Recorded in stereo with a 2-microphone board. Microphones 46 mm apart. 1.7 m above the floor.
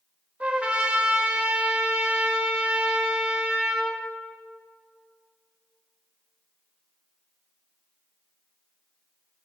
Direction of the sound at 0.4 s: 25° right (ahead or behind).